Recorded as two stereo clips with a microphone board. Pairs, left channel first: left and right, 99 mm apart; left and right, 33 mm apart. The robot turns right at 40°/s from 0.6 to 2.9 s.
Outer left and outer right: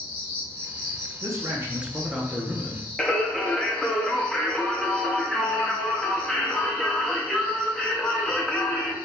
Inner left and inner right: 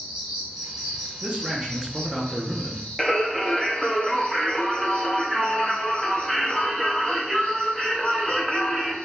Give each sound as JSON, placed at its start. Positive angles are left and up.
{"t": 0.0, "sound": "an insect", "azimuth_deg": -20, "distance_m": 1.9}
{"t": 1.2, "sound": "a man speaking", "azimuth_deg": -40, "distance_m": 0.7}
{"t": 3.0, "sound": "singing", "side_deg": 5, "distance_m": 0.6}